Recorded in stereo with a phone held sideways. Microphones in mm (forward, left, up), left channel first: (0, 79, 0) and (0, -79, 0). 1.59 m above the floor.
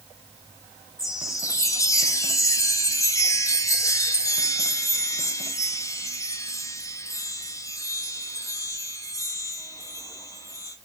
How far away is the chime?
About 0.7 m.